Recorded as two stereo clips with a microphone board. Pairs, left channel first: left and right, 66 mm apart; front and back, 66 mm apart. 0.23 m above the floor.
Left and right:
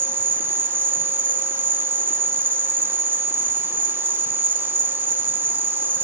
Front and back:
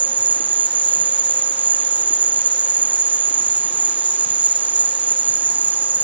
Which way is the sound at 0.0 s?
130° right.